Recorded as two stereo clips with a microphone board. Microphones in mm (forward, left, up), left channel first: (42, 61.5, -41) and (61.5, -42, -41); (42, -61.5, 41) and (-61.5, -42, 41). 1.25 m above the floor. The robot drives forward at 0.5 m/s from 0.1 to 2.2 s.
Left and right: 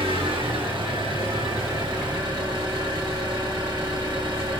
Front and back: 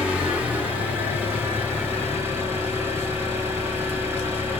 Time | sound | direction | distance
0.0 | an engine running | 115° right | 5 m